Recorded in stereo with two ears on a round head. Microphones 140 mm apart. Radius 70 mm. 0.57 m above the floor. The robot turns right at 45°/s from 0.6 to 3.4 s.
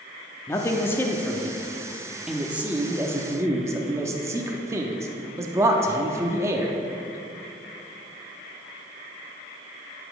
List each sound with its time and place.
0.5 s a man speaking: 20° left (ahead or behind), 0.7 m; by 6.7 s 15° right (ahead or behind), 0.7 m